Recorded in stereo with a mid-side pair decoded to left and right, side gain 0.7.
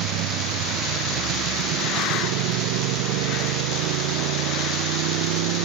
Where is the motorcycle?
65° right; by 5.7 s 75° right.